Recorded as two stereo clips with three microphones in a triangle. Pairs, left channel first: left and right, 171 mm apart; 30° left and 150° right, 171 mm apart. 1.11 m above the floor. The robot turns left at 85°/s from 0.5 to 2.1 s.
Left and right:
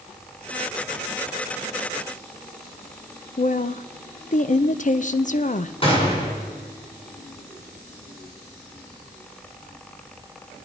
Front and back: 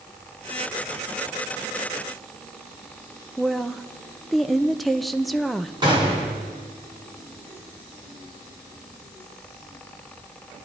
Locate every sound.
3.4 s a woman speaking: 120° left, 0.6 m
5.8 s a gunshot: 150° left, 4 m